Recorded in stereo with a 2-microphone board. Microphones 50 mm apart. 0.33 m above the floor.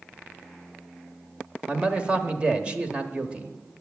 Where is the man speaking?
20° right (ahead or behind), 1.1 m.